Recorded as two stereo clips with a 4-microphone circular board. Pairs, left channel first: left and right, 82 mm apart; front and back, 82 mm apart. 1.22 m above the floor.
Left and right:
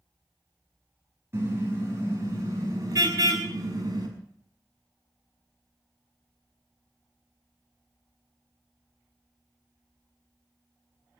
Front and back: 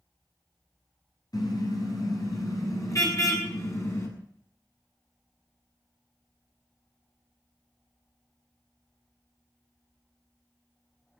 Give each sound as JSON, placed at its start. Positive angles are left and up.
{"t": 1.3, "sound": "a car horn", "azimuth_deg": -35, "distance_m": 5.5}